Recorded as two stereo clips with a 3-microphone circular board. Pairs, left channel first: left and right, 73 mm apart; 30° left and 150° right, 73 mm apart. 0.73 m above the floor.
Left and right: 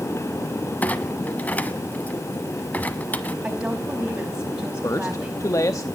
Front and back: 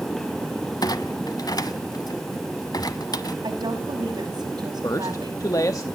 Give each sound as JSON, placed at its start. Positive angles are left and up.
{"t": 0.8, "sound": "a clunk", "azimuth_deg": 25, "distance_m": 1.0}
{"t": 3.4, "sound": "a woman speaking", "azimuth_deg": -170, "distance_m": 5.0}
{"t": 4.8, "sound": "a man speaking", "azimuth_deg": 60, "distance_m": 0.8}